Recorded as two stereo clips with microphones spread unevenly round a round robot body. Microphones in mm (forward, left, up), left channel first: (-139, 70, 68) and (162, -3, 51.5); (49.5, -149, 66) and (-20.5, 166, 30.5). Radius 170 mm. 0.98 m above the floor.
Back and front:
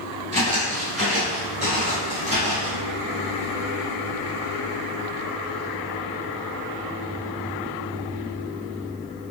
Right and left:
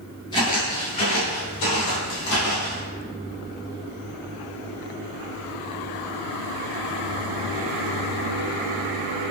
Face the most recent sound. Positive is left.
turn(degrees=-85)